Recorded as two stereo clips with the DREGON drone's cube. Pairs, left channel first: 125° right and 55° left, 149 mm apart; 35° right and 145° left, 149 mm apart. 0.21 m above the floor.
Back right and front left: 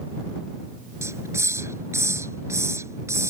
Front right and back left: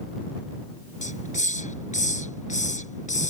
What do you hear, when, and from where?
1.0 s a hiss: 15° right